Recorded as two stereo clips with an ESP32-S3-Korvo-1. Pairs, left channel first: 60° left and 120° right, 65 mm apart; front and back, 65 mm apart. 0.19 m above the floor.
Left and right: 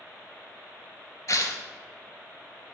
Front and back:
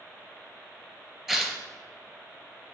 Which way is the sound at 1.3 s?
95° left.